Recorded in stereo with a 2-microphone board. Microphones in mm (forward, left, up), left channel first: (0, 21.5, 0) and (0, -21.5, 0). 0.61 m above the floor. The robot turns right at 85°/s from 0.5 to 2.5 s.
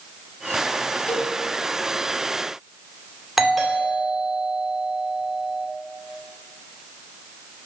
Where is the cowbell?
30° left (ahead or behind), 0.8 m; by 1.3 s 50° left (ahead or behind), 0.8 m.